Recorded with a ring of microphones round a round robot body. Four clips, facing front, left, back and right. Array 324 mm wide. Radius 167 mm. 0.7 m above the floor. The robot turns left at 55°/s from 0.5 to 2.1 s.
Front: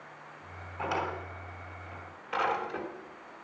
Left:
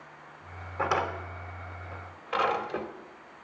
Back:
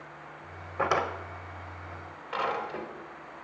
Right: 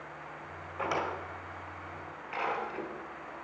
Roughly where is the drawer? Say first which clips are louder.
Left 4 dB, back 5 dB; behind.